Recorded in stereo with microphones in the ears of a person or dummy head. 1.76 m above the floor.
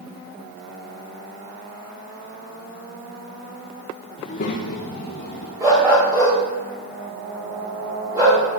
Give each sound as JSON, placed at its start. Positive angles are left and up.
{"t": 4.2, "sound": "a child speaking", "side_deg": 40, "distance_m": 0.8}
{"t": 5.6, "sound": "a dog barking", "side_deg": -10, "distance_m": 3.0}